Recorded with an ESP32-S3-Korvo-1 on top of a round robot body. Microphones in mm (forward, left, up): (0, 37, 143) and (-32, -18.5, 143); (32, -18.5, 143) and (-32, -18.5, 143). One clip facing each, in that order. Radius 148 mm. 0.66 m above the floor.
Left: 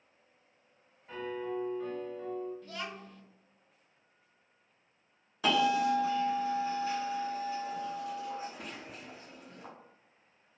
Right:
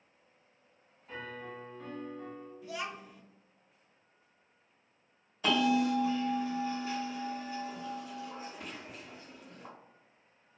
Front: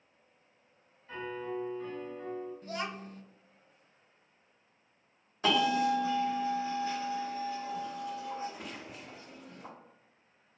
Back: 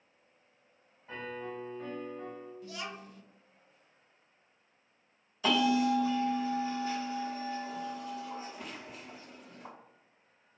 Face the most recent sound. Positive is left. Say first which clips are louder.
# left 1 dB, even
turn(degrees=60)